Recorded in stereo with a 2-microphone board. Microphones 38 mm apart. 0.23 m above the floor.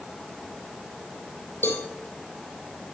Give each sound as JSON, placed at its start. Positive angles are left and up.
{"t": 1.6, "sound": "a cowbell", "side_deg": 70, "distance_m": 2.5}